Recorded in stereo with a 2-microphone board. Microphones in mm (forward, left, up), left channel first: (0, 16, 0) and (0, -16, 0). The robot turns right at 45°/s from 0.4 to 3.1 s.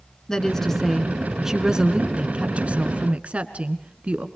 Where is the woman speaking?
155° left, 1.7 m; by 4.3 s 85° right, 1.7 m.